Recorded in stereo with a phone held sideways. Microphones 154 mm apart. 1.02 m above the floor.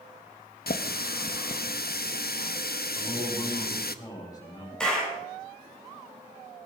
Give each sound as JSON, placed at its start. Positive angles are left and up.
{"t": 0.7, "sound": "a running tap", "side_deg": 85, "distance_m": 0.7}
{"t": 3.0, "sound": "a man speaking", "side_deg": 25, "distance_m": 6.5}
{"t": 4.8, "sound": "a clap", "side_deg": 5, "distance_m": 5.0}